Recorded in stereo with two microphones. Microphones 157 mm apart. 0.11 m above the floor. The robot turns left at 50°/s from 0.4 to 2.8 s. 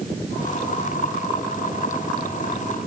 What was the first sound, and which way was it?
Only background noise.